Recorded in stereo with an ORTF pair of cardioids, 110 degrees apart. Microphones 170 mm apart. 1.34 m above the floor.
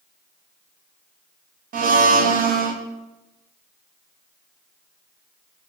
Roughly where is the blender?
Ahead right.